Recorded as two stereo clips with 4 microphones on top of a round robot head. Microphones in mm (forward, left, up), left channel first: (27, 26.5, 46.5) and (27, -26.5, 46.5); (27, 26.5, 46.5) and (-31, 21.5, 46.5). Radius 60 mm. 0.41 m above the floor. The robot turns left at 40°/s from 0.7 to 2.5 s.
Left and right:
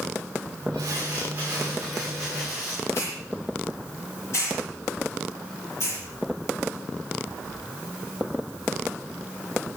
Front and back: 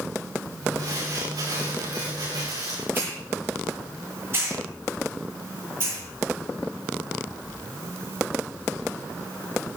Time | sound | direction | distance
0.8 | crumpling | 135° right | 9 m
2.9 | a hiss | 135° left | 8 m